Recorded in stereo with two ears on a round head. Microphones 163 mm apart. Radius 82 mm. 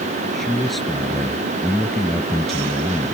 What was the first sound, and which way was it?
A man speaking, centre (ahead or behind).